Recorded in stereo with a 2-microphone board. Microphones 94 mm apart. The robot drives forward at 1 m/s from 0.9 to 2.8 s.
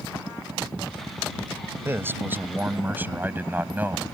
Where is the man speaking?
25° right (ahead or behind); by 4.0 s 20° right (ahead or behind).